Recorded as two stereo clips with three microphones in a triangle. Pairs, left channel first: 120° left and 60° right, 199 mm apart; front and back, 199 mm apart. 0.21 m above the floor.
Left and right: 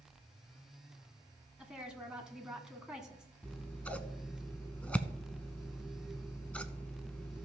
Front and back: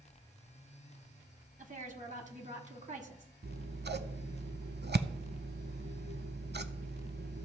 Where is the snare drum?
I don't hear a snare drum.